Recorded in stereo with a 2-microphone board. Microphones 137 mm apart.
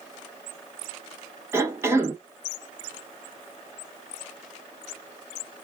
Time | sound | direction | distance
1.5 | a cough | 20° right (ahead or behind) | 0.7 m